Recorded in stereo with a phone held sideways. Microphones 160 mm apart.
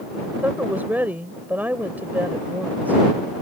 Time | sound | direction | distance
0.4 | a woman speaking | 10° right (ahead or behind) | ?